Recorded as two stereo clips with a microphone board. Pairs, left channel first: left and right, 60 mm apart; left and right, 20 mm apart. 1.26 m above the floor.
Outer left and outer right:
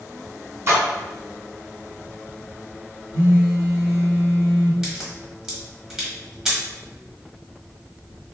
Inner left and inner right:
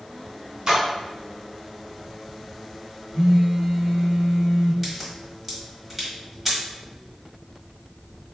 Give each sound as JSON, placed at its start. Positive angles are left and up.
{"t": 0.7, "sound": "a splash", "side_deg": -45, "distance_m": 1.3}
{"t": 3.1, "sound": "a phone buzzing", "side_deg": -35, "distance_m": 1.3}
{"t": 4.8, "sound": "a crack", "side_deg": -10, "distance_m": 1.3}